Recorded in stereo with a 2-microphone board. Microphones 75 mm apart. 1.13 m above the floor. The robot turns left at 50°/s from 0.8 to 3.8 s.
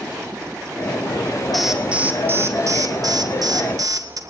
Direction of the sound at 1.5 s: Straight ahead.